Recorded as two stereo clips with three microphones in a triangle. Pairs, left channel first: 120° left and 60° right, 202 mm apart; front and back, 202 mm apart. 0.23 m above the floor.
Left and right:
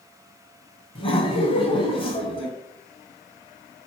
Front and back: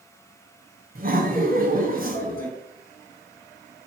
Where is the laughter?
170° left, 1.9 m.